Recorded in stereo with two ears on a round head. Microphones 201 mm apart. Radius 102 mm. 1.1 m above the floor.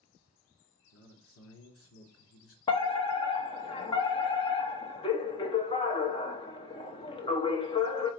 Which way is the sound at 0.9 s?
60° left (ahead or behind).